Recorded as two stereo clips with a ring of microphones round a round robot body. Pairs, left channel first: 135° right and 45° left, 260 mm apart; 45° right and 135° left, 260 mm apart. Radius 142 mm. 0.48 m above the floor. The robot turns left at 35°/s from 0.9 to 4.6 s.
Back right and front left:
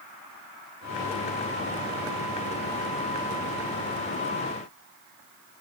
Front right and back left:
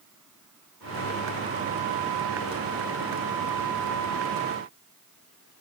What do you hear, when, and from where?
Only background noise.